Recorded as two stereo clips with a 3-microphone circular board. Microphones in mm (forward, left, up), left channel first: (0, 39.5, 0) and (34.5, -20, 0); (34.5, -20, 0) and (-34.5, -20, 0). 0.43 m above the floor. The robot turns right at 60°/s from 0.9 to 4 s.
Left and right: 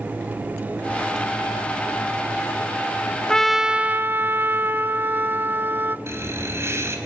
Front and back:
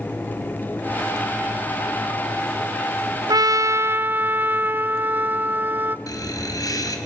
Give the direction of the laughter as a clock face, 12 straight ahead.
12 o'clock.